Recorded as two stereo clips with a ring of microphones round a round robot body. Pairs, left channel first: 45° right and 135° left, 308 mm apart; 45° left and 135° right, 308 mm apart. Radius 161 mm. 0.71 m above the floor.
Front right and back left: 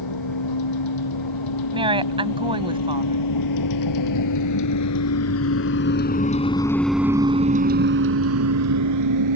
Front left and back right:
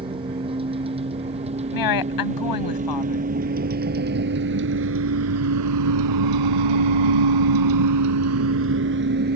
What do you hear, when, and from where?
0.0 s a vehicle: 60° right; by 9.4 s 165° left
1.7 s a woman speaking: 60° left